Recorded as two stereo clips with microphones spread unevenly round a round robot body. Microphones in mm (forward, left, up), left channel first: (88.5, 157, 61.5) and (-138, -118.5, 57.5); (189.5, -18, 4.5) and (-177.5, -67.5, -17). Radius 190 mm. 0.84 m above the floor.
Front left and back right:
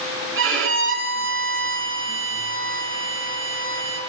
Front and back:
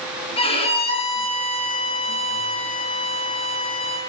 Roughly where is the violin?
Right.